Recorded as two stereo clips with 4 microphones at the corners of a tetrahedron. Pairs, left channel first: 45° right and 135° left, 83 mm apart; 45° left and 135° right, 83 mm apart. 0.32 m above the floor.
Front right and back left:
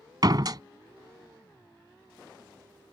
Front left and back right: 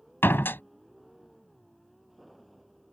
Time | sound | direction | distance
0.2 | a door slam | 105° left | ?